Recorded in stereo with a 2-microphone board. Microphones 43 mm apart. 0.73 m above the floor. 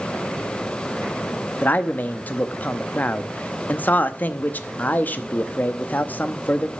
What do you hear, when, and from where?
1.6 s a man speaking: 45° left (ahead or behind), 0.8 m